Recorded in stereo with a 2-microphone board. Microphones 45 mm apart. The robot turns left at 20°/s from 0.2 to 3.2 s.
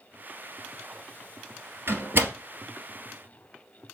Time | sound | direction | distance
1.9 | a door slam | 50° right (ahead or behind) | 1.7 m